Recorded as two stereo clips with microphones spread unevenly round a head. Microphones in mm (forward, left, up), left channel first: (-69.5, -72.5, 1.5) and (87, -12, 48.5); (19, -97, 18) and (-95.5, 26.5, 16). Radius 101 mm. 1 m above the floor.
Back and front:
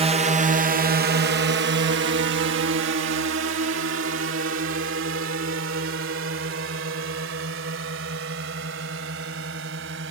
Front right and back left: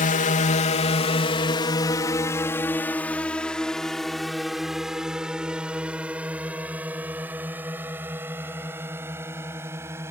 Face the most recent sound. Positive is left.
turn(degrees=55)